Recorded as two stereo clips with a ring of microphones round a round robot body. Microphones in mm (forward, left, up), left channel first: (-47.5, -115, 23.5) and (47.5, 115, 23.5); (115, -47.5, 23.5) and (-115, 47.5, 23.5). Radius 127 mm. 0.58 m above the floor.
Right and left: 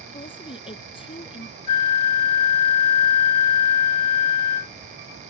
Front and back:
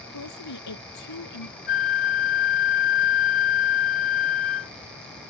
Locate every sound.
0.1 s a woman speaking: 40° right
1.7 s a flute: 85° right